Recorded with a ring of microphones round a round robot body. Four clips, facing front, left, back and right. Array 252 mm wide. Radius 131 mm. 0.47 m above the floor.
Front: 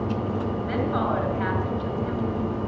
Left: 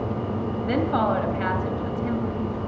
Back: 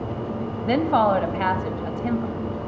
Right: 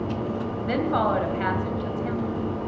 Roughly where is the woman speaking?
Behind.